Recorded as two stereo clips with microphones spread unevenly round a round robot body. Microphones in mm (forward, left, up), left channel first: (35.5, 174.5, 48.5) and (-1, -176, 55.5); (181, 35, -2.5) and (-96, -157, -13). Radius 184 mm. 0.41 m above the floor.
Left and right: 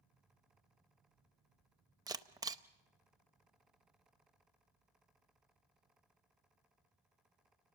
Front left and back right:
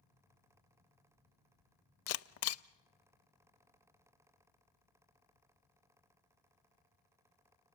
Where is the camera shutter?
15° right, 0.7 m.